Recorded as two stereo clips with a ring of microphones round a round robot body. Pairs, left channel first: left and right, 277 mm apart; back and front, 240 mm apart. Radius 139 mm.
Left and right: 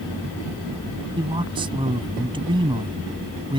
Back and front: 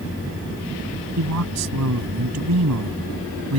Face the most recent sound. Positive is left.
turn(degrees=-20)